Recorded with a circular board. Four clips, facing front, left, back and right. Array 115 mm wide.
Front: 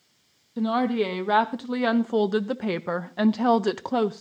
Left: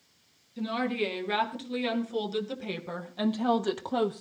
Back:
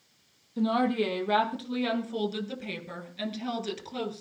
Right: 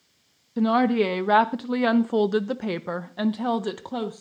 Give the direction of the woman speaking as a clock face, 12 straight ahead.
3 o'clock.